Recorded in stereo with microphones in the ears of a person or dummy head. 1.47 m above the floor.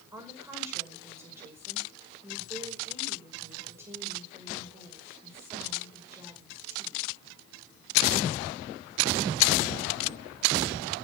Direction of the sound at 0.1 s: 20° right (ahead or behind).